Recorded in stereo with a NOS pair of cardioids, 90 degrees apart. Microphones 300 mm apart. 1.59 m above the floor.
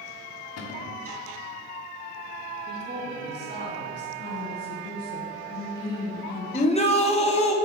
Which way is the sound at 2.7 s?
35° right.